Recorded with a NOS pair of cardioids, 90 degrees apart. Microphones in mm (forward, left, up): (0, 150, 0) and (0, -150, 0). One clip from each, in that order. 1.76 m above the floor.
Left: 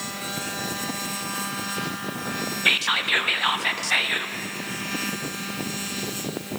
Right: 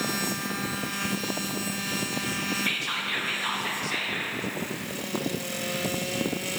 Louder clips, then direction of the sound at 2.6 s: Left 11 dB; 45° left.